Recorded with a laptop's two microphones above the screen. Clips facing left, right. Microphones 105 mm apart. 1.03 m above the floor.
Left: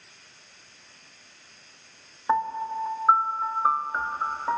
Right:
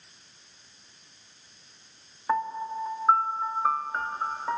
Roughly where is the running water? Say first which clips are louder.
Left 4 dB; left.